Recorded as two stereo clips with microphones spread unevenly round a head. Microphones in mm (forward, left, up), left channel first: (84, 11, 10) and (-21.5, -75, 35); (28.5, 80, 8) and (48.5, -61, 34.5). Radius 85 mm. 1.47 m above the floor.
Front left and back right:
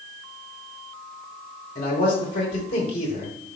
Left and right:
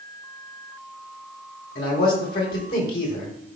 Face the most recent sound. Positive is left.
turn(degrees=90)